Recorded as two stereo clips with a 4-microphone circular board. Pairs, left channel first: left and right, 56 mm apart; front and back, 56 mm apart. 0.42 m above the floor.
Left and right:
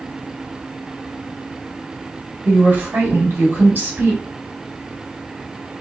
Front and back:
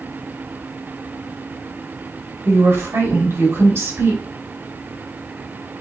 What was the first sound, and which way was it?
A woman speaking, 150° right.